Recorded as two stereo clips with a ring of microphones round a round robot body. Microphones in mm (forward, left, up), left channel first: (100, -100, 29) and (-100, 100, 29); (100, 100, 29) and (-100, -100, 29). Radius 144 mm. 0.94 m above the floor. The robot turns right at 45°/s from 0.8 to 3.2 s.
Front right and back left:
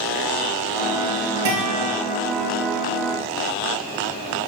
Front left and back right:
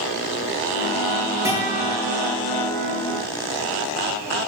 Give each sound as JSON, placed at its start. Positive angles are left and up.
{"t": 1.4, "sound": "a guitar", "azimuth_deg": 145, "distance_m": 7.0}